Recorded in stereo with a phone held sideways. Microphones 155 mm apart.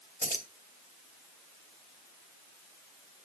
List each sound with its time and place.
0.2 s keys jangling: 75° left (ahead or behind), 2.5 m